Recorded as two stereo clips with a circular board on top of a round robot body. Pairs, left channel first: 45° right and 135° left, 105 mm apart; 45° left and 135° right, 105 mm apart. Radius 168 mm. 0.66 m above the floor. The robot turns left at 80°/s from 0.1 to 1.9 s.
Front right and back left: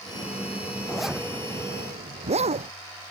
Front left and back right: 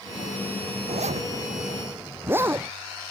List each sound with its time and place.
0.9 s a zipper: 125° right; by 2.7 s 155° left